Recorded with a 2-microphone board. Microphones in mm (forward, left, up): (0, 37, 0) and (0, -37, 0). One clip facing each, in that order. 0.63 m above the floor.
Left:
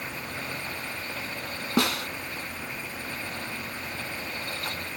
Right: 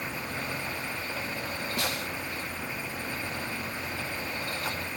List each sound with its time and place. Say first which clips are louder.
1.8 s a snare drum: left 9 dB; 80° left